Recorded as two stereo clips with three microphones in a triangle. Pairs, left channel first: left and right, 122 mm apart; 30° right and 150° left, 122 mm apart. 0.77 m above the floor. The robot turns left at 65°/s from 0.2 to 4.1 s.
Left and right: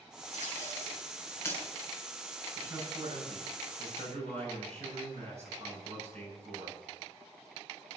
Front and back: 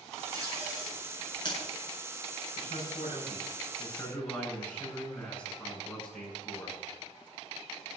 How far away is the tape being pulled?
About 6.5 m.